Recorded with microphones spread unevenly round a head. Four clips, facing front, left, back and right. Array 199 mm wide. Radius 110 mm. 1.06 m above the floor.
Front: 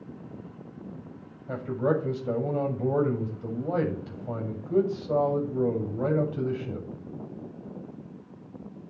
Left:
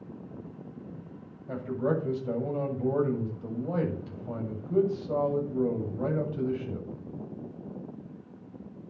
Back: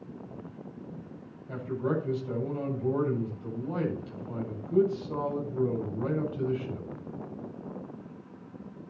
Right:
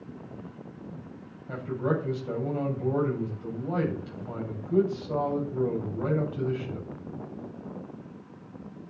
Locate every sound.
1.5 s a man speaking: 15° left, 7.5 m